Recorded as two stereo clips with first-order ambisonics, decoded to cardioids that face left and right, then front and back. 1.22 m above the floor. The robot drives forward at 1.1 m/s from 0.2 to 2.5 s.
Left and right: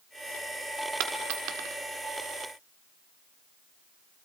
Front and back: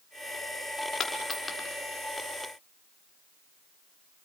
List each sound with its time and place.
1.0 s a dropped coin: 60° right, 1.7 m; by 1.8 s 90° right, 1.5 m